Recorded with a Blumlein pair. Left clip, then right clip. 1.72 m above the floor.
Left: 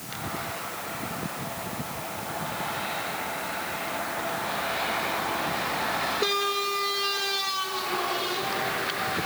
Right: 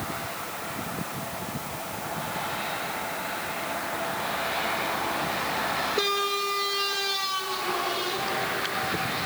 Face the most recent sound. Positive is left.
No sound to turn to.